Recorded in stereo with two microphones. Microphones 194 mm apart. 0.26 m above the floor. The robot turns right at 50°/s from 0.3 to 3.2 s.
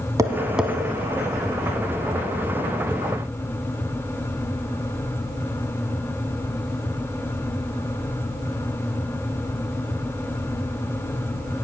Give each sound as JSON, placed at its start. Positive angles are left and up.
{"t": 0.2, "sound": "tapping", "side_deg": -15, "distance_m": 0.9}